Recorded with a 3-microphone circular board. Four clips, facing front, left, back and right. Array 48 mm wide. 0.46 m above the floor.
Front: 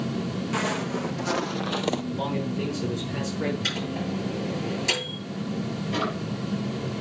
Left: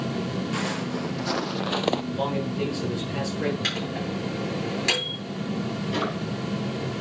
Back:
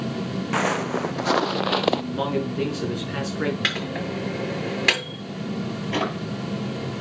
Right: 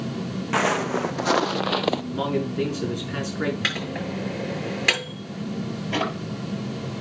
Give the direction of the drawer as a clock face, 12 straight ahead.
4 o'clock.